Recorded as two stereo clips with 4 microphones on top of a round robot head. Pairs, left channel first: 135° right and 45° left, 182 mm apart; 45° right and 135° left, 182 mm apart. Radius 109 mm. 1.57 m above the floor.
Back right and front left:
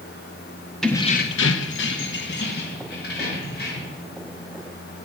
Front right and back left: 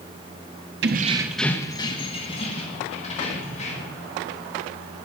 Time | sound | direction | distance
0.8 | keys jangling | 135° left | 0.8 m